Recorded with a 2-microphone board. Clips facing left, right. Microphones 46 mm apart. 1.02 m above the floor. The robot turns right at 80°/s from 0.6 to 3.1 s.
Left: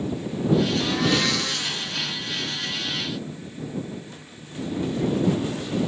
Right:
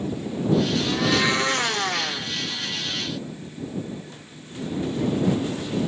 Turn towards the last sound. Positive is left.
turn(degrees=-10)